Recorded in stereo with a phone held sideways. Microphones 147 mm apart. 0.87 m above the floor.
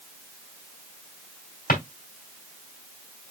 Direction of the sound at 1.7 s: 80° left.